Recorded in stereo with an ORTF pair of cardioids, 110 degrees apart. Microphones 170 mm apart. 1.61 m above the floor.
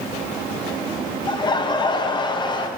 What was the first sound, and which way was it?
Laughter, 25° left.